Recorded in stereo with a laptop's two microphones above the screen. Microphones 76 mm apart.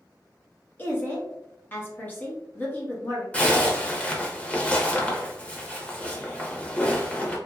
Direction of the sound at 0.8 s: 25° left (ahead or behind).